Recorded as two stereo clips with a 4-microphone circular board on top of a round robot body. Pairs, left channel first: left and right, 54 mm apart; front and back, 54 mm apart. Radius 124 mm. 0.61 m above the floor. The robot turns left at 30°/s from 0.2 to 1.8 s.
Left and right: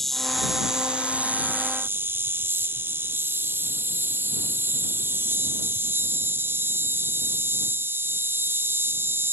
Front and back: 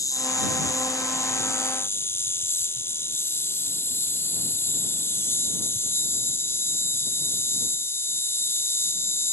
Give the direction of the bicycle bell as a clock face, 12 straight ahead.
No bicycle bell in this recording.